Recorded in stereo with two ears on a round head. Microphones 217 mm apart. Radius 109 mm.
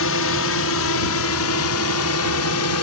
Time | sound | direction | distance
0.0 | a drone | 60° left (ahead or behind) | ?